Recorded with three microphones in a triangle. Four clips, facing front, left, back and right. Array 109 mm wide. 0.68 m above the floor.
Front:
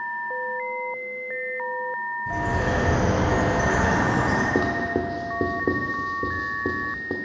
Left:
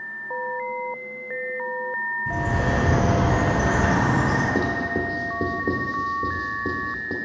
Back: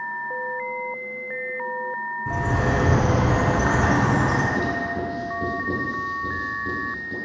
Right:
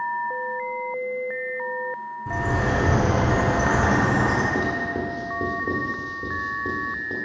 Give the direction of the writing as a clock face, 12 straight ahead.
12 o'clock.